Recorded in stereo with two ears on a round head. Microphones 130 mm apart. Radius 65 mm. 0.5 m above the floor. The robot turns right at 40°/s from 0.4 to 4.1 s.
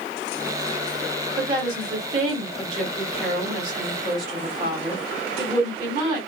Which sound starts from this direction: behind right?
A woman speaking, at 1.4 s.